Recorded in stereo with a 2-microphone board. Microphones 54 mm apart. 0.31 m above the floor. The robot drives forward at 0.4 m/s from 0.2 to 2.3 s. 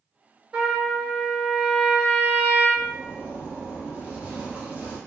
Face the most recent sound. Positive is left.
turn(degrees=-30)  # may be behind; listen again after turning